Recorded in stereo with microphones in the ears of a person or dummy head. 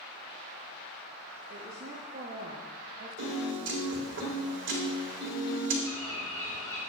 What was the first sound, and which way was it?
A woman speaking, 50° right (ahead or behind).